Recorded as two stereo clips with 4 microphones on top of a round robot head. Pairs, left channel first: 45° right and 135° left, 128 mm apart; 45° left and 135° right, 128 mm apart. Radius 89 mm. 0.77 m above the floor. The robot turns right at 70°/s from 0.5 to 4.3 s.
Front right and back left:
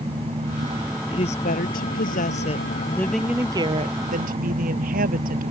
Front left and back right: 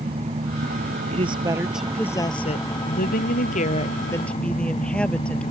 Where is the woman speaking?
100° right; by 5.5 s 125° left.